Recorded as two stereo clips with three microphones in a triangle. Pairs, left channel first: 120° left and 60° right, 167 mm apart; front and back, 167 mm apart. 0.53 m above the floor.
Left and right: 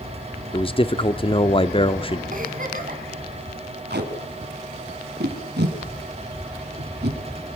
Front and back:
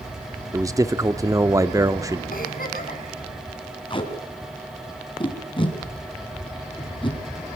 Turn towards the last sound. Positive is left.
turn(degrees=-60)